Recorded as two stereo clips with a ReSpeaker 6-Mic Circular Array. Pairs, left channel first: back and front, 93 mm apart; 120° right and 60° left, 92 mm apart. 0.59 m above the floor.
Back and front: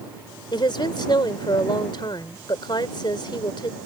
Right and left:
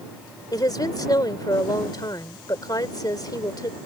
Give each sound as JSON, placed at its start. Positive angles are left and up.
{"t": 0.5, "sound": "a woman speaking", "azimuth_deg": -155}